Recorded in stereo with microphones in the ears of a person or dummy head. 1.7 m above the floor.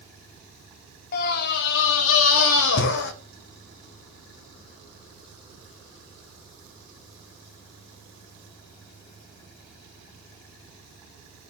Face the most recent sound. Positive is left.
turn(degrees=55)  # may be behind; listen again after turning